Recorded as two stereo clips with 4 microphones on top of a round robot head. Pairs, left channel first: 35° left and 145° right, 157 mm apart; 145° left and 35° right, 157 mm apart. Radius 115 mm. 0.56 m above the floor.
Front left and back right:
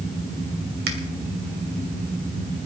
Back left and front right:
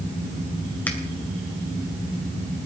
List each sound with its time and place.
0.9 s a finger snap: 135° right, 2.5 m